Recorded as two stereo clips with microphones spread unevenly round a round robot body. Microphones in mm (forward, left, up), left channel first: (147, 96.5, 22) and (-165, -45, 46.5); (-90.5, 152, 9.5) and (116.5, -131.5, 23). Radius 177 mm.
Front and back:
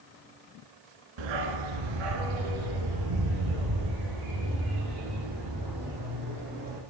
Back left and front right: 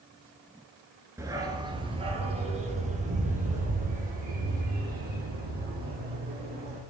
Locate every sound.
1.2 s a dog barking: 135° right, 1.4 m; by 6.8 s 120° right, 5 m